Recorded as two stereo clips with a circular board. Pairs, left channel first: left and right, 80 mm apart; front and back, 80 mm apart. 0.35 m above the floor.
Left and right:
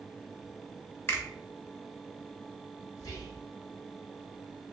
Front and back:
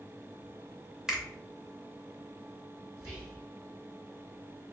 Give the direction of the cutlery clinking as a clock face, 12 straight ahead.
I don't hear cutlery clinking.